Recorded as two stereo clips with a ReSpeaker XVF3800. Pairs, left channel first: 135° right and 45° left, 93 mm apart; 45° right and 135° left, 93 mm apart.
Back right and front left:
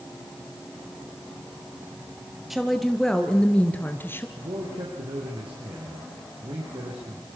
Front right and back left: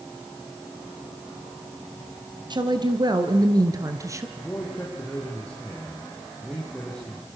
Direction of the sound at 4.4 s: 30° left.